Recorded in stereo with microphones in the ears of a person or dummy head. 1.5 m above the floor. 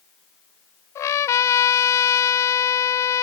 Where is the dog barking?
I don't hear a dog barking.